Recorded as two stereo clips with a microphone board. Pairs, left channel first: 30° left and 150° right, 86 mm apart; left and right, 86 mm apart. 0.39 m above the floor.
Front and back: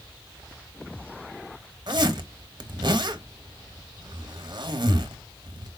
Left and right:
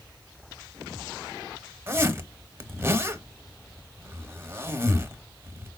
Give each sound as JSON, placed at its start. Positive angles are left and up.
{"t": 1.9, "sound": "a zipper", "azimuth_deg": -150, "distance_m": 0.7}